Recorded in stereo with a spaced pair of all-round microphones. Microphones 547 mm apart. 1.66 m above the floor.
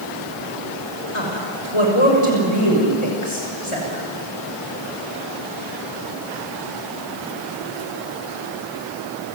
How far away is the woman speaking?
About 6 m.